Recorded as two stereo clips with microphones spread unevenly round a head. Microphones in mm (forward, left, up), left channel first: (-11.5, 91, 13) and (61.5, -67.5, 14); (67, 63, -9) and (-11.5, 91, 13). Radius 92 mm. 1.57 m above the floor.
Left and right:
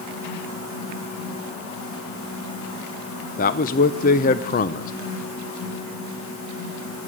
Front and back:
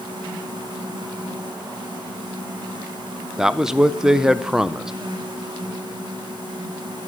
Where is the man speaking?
95° left, 0.6 m.